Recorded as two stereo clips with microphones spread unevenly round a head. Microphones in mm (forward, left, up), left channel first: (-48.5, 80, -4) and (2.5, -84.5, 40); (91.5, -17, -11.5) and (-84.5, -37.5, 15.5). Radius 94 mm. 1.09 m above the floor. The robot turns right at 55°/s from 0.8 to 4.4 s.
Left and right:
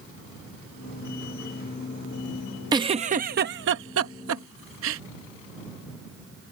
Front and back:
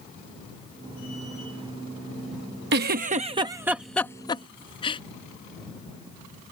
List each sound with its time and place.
2.7 s a giggle: 145° right; by 5.0 s 50° right